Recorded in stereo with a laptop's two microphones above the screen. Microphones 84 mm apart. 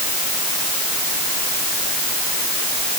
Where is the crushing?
No crushing in this recording.